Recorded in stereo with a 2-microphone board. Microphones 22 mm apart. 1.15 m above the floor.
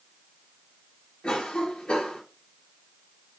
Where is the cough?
50° left (ahead or behind), 1.0 m.